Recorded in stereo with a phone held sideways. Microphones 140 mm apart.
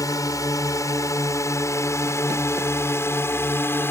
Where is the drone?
25° left (ahead or behind); by 3.9 s 15° left (ahead or behind).